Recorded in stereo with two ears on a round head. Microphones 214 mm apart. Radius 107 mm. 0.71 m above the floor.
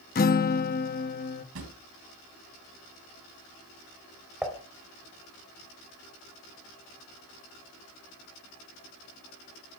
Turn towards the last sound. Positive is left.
turn(degrees=0)  # may be behind; listen again after turning